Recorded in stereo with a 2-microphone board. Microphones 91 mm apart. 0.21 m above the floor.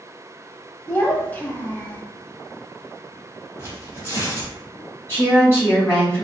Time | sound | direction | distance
0.9 | a child speaking | 20° left (ahead or behind) | 0.5 m
3.6 | tearing paper | 25° right (ahead or behind) | 1.2 m
5.1 | a woman speaking | 25° left (ahead or behind) | 1.6 m